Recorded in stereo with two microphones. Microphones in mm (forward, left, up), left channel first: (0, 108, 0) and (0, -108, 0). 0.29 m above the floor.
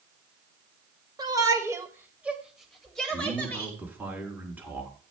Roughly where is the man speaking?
Centre.